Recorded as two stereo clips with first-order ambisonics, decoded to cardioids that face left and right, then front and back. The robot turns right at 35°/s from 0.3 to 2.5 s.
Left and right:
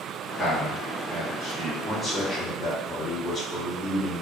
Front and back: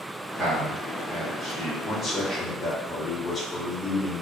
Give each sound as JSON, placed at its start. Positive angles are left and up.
{"t": 0.4, "sound": "a man speaking", "azimuth_deg": -155, "distance_m": 1.6}
{"t": 1.8, "sound": "a man speaking", "azimuth_deg": 20, "distance_m": 0.7}